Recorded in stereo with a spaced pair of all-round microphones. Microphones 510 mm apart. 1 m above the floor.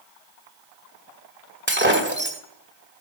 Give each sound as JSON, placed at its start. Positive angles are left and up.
{"t": 1.7, "sound": "breaking glass", "side_deg": -20, "distance_m": 1.7}